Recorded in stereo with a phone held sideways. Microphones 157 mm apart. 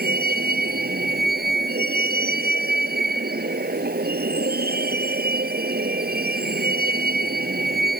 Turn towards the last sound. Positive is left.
turn(degrees=-80)